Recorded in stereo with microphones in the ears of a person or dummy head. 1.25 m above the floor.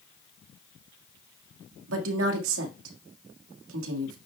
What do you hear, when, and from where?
1.9 s a woman speaking: 75° right (ahead or behind), 1.8 m